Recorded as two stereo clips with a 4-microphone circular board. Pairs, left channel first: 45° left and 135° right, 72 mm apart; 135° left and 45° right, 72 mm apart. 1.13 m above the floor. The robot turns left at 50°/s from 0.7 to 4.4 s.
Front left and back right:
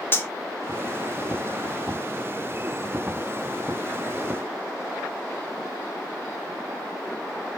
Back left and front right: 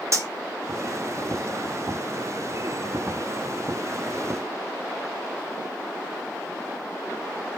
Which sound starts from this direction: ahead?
Cutlery clinking, at 0.1 s.